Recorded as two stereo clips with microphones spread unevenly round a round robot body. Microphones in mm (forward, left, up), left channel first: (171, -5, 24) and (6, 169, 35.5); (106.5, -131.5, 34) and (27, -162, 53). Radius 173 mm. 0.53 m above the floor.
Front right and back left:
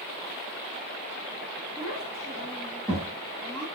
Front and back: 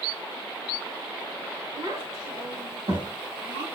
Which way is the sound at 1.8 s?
145° right.